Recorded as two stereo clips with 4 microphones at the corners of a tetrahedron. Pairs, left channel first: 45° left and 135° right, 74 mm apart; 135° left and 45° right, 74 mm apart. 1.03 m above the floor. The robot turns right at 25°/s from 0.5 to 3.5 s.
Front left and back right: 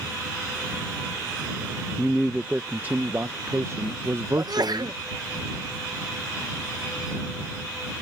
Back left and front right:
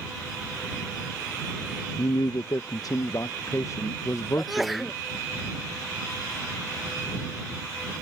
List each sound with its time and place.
2.0 s a man speaking: 135° left; by 4.9 s 175° left
4.4 s a sneeze: 135° right